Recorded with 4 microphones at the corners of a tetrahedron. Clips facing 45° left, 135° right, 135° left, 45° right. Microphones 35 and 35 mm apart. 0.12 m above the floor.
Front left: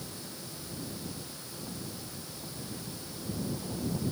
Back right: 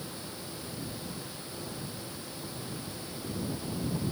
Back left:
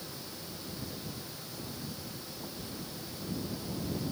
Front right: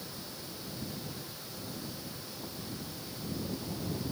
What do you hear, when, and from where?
Only background noise.